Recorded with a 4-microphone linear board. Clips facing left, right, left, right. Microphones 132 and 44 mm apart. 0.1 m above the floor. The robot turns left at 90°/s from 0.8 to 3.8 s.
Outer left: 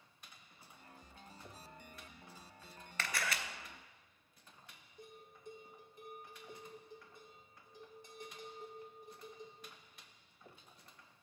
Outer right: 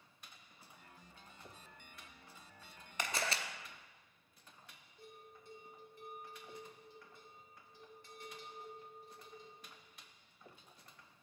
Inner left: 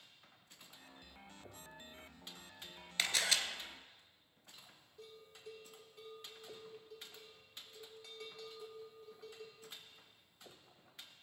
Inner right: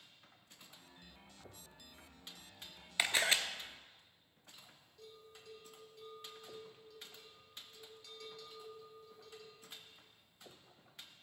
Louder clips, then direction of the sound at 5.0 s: Outer left 2 dB, inner left 1 dB; 15° left (ahead or behind).